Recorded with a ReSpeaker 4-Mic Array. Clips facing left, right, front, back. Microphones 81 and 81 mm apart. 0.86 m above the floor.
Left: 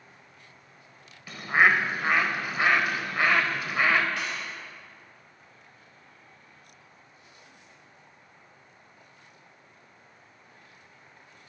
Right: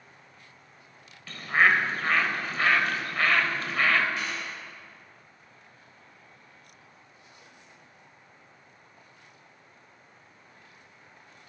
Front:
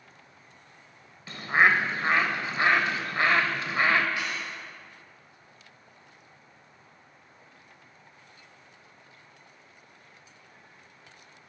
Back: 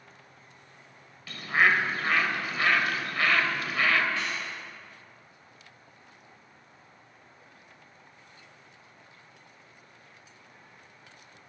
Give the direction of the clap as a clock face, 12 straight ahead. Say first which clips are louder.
Even, even; 10 o'clock.